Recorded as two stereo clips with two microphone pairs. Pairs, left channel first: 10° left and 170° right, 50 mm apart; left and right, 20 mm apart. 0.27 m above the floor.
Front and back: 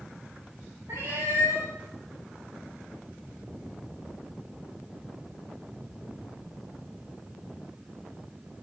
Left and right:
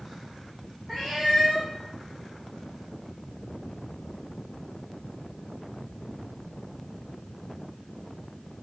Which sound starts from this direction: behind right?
A cat meowing, at 0.9 s.